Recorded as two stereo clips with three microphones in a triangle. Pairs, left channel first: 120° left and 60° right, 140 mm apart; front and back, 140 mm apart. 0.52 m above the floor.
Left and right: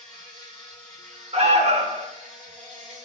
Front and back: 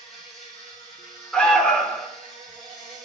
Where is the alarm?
80° right, 0.9 m.